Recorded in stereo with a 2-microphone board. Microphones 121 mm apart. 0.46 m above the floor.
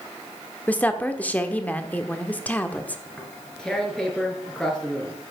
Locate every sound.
0.7 s a woman speaking: 10° left (ahead or behind), 1.0 m
3.1 s tearing paper: 5° left (ahead or behind), 2.5 m